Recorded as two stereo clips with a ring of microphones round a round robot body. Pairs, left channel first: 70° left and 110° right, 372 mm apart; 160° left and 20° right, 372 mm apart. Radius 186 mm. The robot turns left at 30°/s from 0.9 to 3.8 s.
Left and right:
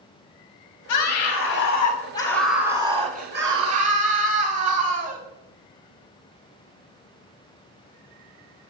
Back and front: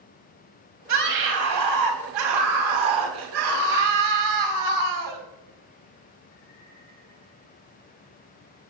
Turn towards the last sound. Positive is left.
turn(degrees=-60)